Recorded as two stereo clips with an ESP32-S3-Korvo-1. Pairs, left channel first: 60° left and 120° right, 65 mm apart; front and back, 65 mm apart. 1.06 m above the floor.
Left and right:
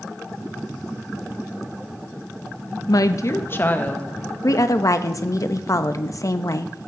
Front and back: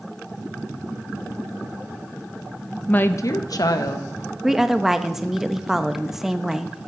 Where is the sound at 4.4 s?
95° left, 0.8 m.